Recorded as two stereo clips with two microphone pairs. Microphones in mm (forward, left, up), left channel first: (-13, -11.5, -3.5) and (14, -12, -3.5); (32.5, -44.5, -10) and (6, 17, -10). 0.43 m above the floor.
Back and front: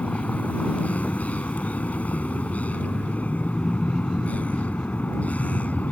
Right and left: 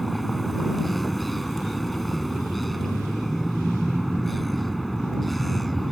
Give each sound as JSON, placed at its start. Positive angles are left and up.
{"t": 0.0, "sound": "a vehicle", "azimuth_deg": -155}